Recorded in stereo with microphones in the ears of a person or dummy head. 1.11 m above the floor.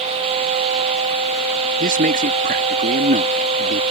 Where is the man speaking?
40° right (ahead or behind).